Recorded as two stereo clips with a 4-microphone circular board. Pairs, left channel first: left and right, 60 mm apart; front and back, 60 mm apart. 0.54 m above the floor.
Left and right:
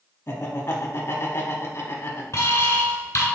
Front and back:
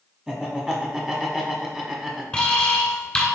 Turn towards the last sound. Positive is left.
turn(degrees=65)